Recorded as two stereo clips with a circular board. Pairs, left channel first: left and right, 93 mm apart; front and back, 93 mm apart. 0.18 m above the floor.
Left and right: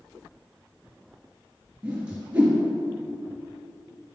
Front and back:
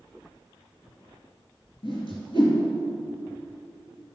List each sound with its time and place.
1.8 s a whoosh: 15° right, 3 m